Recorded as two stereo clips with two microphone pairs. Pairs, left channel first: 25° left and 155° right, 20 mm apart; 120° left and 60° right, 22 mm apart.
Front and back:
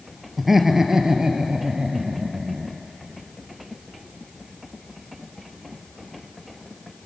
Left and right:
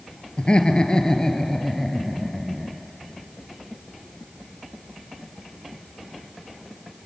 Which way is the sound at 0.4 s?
130° left.